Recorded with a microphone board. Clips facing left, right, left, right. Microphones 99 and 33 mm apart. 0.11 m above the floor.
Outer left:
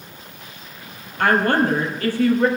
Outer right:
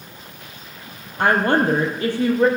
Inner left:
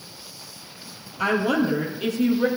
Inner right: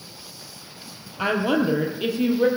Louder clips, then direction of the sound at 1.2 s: Even, even; 25° right (ahead or behind).